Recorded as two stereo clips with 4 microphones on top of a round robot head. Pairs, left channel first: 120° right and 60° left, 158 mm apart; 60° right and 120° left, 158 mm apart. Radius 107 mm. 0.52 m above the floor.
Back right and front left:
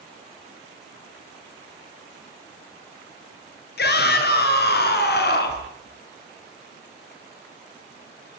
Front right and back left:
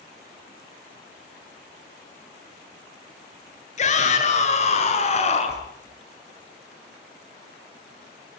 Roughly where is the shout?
Right.